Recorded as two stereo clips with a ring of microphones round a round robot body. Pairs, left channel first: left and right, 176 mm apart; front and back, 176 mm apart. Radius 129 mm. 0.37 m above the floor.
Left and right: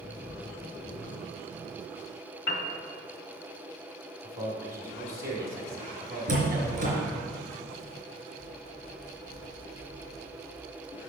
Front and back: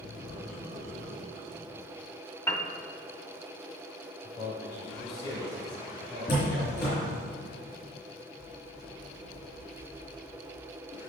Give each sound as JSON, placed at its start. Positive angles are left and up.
{"t": 2.5, "sound": "a piano", "azimuth_deg": 75, "distance_m": 1.0}
{"t": 4.2, "sound": "a man speaking", "azimuth_deg": -70, "distance_m": 1.8}
{"t": 6.3, "sound": "a door slam", "azimuth_deg": -55, "distance_m": 2.5}